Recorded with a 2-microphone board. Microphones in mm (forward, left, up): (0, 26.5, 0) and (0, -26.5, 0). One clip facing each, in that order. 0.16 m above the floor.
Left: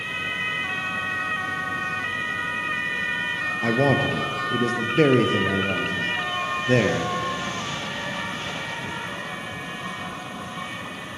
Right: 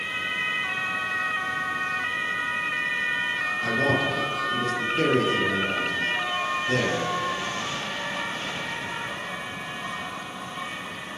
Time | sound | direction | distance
3.6 | a man speaking | 40° left (ahead or behind) | 3.5 m